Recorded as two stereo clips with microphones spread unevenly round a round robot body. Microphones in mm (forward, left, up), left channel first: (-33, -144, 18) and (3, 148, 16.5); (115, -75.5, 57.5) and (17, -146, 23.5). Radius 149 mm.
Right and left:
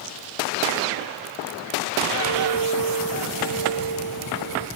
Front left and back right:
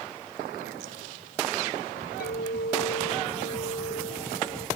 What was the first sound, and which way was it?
A clink, 80° left.